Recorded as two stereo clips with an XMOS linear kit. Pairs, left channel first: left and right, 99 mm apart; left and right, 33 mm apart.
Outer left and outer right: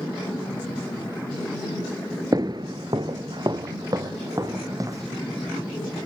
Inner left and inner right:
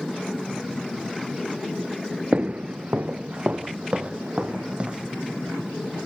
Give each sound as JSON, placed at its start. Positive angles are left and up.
{"t": 2.3, "sound": "footsteps", "side_deg": -40, "distance_m": 0.6}